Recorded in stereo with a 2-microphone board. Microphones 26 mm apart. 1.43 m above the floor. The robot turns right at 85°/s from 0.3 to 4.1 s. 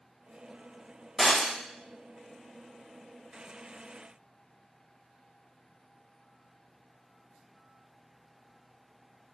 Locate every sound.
1.2 s breaking glass: 20° left (ahead or behind), 2.5 m; by 1.5 s 10° right (ahead or behind), 2.5 m